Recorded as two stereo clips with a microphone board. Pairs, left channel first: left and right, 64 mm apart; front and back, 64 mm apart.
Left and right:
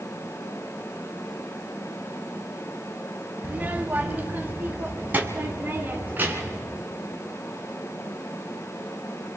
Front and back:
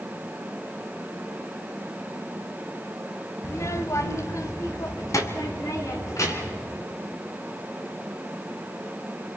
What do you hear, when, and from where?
3.4 s a child speaking: 25° right, 1.1 m; by 6.7 s 30° right, 3.5 m